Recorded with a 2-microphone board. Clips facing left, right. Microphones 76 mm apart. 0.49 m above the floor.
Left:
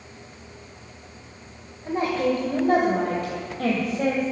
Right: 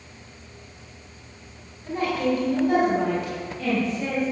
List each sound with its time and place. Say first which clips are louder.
1.9 s a woman speaking: left 1 dB; 25° left (ahead or behind), 2.5 m; by 4.2 s 55° left (ahead or behind), 3 m